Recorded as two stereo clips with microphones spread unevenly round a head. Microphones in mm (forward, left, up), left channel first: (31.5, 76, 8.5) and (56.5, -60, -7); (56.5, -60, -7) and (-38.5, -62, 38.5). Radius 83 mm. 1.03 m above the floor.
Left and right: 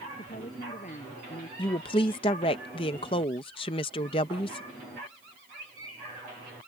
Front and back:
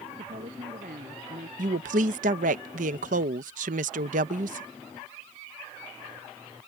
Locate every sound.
0.2 s a woman speaking: 155° left
1.6 s a woman speaking: 165° left